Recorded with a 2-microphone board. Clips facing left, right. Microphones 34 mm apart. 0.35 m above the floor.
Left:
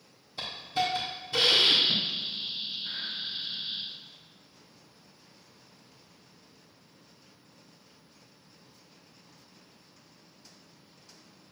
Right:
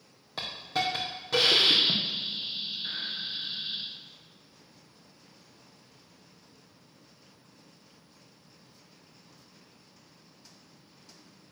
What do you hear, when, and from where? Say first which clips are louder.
0.4 s a hiss: left 1 dB; 85° right, 3 m